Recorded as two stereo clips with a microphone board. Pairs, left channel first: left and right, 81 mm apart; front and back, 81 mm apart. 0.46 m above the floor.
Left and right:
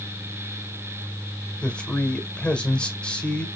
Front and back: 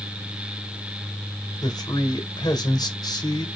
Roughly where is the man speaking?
Ahead.